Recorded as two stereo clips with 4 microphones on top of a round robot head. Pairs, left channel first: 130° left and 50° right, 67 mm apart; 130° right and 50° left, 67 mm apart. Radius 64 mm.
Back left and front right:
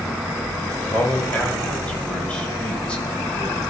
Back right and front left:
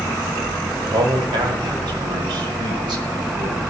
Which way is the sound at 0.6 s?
55° left.